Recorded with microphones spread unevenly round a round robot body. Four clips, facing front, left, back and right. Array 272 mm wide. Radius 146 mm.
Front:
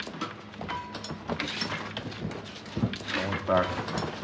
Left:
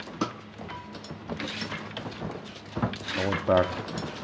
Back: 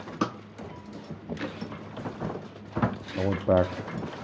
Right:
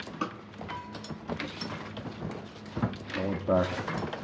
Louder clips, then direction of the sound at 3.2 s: Left 4 dB, back 3 dB; 165° left.